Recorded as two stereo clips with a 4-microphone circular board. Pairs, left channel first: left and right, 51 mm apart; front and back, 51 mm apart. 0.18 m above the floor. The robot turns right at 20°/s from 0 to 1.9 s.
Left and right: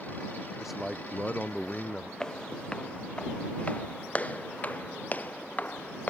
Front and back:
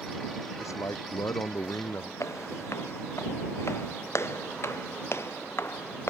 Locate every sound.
0.6 s a man speaking: 5° right; by 2.1 s 20° left
2.2 s footsteps: 15° left; by 6.1 s 35° left